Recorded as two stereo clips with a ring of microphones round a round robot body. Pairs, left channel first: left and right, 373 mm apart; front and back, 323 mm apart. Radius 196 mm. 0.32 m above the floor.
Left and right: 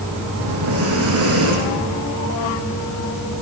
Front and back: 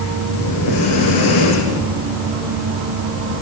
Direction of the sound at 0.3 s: 40° right.